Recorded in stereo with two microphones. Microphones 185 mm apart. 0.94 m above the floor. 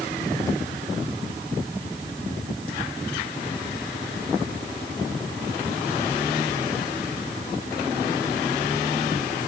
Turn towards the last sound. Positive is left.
No sound to turn to.